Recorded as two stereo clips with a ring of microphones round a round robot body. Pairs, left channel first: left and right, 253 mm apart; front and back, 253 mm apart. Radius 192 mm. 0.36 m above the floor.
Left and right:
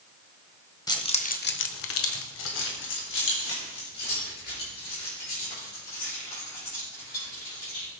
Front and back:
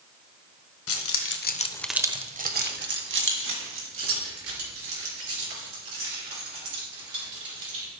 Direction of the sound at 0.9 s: 15° left.